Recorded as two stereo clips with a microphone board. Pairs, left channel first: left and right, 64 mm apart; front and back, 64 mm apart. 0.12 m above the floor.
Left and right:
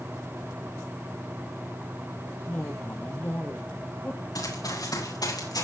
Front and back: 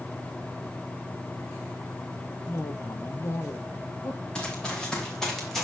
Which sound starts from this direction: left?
Running footsteps, at 4.3 s.